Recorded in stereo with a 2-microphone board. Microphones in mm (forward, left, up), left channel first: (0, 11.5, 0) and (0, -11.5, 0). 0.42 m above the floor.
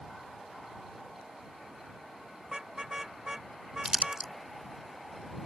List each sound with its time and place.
2.5 s a car horn: 15° right (ahead or behind); by 4.3 s 25° right (ahead or behind)
3.9 s crumpling: 30° right (ahead or behind)